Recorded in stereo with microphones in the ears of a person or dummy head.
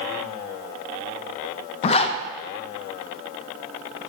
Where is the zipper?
40° left (ahead or behind), 0.6 m.